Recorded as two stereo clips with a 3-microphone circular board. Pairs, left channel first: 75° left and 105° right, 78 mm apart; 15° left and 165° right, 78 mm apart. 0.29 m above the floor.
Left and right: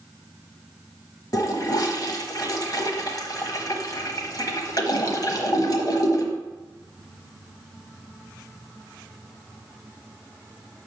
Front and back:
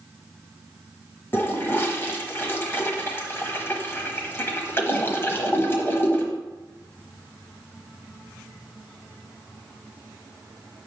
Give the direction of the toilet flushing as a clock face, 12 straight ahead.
10 o'clock.